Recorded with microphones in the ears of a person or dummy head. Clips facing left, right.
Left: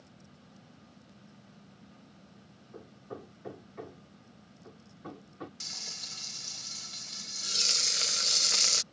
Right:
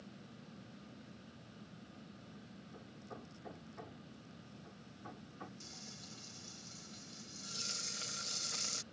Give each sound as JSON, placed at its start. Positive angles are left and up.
{"t": 2.7, "sound": "hammering", "side_deg": 65}
{"t": 5.6, "sound": "frying", "side_deg": 70}